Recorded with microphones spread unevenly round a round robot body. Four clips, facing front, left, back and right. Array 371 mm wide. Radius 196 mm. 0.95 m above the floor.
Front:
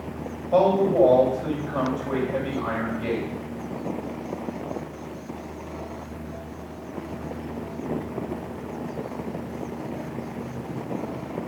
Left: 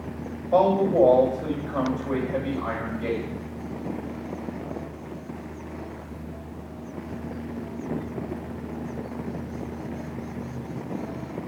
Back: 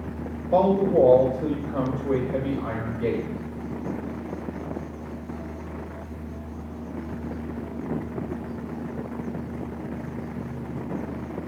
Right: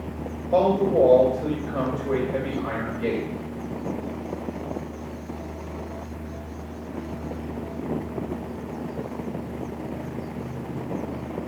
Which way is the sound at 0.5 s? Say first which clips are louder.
Even, even; straight behind.